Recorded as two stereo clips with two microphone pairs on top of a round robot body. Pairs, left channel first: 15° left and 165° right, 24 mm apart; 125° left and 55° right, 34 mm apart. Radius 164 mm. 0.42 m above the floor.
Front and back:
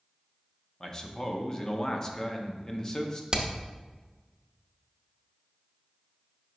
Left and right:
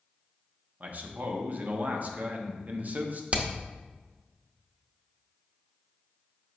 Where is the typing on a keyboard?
No typing on a keyboard in this recording.